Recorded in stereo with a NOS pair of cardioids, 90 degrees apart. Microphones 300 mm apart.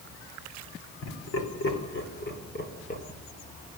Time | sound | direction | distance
1.0 | laughter | 55° left | 4.5 m